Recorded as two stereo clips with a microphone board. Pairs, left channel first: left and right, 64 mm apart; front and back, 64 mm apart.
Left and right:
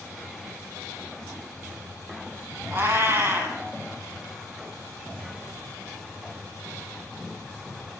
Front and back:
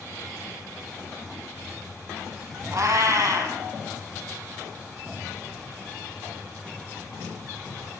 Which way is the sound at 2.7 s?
135° right.